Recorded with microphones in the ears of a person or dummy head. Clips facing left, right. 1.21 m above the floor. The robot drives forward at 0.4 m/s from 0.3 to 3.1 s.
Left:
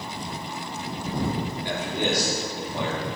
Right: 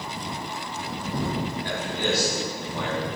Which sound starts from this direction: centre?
A man speaking, at 1.6 s.